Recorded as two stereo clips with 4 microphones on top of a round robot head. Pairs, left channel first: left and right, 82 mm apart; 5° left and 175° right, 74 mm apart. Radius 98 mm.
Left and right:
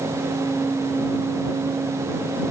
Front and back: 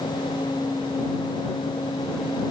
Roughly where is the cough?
No cough in this recording.